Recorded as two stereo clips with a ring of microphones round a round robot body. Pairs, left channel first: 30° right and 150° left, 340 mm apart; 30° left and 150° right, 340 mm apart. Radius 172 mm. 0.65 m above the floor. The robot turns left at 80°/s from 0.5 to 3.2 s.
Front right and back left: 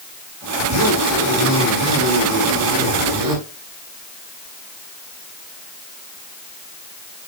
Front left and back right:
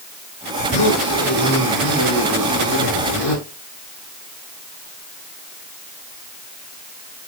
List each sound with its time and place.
0.6 s a zipper: 25° right, 7 m; by 3.4 s 125° left, 7 m